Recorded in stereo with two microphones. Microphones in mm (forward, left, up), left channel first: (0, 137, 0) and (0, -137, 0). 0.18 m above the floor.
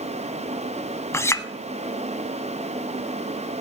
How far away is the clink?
About 0.6 m.